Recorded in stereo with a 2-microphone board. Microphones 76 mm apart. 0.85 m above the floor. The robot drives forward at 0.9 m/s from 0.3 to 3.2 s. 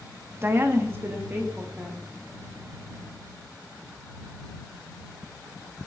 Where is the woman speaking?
30° right (ahead or behind), 0.9 m; by 2.1 s 20° right (ahead or behind), 1.6 m.